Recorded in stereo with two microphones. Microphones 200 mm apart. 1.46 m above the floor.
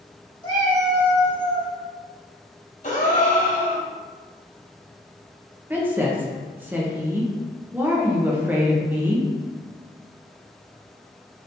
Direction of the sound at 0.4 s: 25° left (ahead or behind).